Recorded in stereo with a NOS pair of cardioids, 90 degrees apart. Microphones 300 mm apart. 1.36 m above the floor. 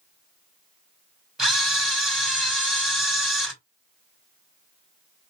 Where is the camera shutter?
Straight ahead, 2.5 m.